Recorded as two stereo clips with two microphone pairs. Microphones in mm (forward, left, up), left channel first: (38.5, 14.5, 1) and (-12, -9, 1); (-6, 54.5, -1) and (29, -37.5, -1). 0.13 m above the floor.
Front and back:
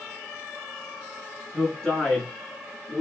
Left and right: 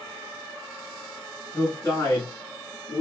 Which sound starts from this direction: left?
A man speaking, at 1.5 s.